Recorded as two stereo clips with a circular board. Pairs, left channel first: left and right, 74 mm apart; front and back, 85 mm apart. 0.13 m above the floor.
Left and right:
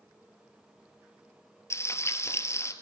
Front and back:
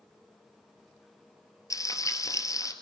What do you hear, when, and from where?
1.7 s frying: 45° left, 2.0 m